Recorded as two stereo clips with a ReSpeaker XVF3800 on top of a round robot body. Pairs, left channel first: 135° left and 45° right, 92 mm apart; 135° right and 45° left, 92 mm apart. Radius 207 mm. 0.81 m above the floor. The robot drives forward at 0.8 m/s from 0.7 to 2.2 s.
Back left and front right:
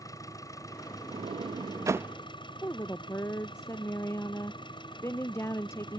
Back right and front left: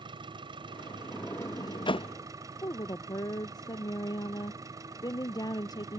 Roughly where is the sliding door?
Ahead right.